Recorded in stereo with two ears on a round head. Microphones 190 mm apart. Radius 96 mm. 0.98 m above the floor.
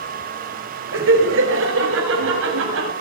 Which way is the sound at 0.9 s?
65° right (ahead or behind).